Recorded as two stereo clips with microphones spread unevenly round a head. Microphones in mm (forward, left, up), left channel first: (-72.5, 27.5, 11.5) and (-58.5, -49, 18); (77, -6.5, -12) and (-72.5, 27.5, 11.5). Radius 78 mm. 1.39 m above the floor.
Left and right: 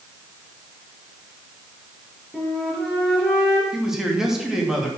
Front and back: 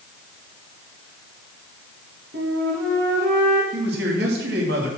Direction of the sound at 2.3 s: 170° right.